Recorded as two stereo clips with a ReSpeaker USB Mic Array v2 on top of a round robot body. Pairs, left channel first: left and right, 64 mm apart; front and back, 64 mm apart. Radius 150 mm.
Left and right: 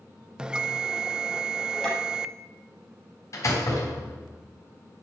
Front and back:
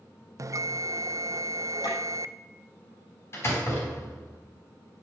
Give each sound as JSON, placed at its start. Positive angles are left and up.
{"t": 0.4, "sound": "a bell", "azimuth_deg": -165, "distance_m": 1.0}
{"t": 1.8, "sound": "tapping", "azimuth_deg": 10, "distance_m": 8.0}
{"t": 3.3, "sound": "a door slam", "azimuth_deg": 50, "distance_m": 4.5}